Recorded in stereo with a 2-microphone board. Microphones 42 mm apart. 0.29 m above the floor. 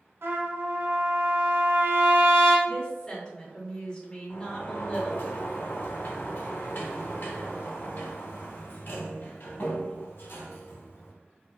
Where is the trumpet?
70° right (ahead or behind), 0.9 m.